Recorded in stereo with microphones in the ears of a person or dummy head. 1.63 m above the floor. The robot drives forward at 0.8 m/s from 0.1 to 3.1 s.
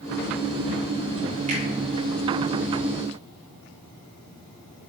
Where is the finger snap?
35° right (ahead or behind), 5.5 m.